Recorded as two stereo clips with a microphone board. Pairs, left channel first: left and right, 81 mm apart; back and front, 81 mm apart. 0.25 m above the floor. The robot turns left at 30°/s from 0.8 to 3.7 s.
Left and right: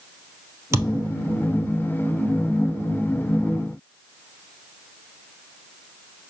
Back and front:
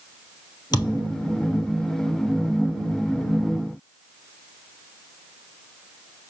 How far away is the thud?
About 2.0 m.